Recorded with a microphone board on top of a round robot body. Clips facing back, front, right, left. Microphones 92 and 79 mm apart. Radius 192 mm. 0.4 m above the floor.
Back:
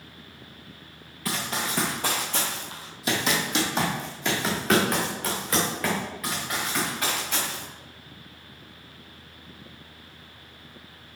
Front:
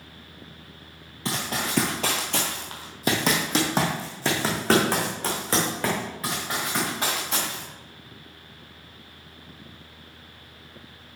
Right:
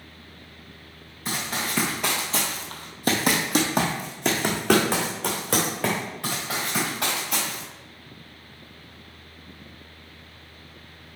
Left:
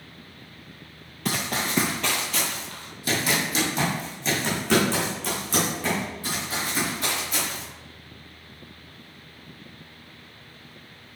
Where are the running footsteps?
65° left, 0.6 m; by 7.6 s 65° right, 3.5 m.